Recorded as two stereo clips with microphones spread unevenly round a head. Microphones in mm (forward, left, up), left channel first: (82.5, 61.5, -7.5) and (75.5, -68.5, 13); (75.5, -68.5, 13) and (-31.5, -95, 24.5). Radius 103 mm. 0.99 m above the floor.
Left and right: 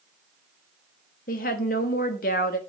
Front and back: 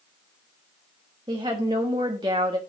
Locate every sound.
1.3 s a woman speaking: 125° left, 1.2 m